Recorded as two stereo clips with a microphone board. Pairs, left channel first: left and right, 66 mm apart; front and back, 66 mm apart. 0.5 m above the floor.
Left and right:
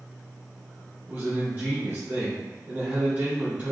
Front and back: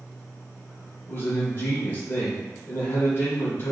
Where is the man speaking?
35° right, 1.8 m.